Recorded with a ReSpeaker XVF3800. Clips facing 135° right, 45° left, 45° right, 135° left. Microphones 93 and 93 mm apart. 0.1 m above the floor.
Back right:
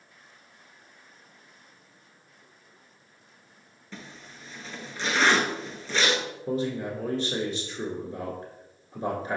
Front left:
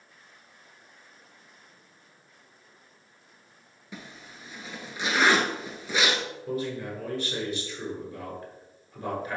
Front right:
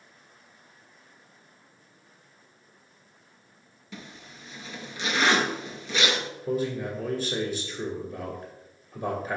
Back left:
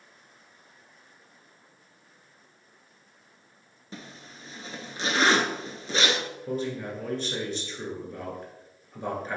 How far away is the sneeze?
I don't hear a sneeze.